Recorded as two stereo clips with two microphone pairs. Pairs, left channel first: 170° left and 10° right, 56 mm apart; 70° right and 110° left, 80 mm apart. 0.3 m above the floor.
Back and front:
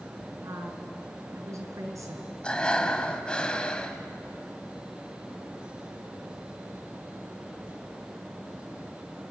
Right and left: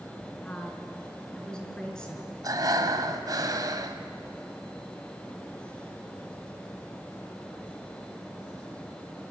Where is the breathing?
100° left, 1.4 m.